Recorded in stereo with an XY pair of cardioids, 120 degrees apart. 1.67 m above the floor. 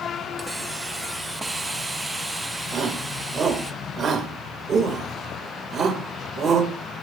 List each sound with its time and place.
0.4 s a hiss: 15° right, 1.3 m
2.7 s a shout: 45° right, 5.5 m